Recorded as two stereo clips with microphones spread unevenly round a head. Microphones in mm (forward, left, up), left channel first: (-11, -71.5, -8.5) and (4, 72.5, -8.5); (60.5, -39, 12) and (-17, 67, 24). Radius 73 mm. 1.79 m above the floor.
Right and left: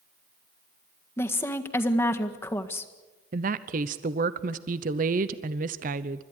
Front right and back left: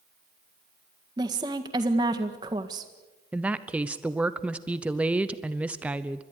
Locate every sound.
1.2 s a woman speaking: 170° right, 1.7 m
3.3 s a woman speaking: 45° left, 0.8 m